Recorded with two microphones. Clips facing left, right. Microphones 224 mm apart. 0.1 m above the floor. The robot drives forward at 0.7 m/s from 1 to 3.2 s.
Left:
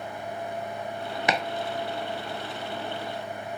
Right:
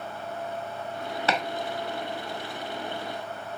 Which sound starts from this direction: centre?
Chopping, at 1.3 s.